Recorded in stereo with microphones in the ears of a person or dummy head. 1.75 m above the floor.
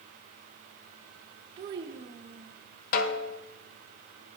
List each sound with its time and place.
1.6 s a child speaking: 25° right (ahead or behind), 1.1 m
2.9 s a snare drum: 50° left (ahead or behind), 1.0 m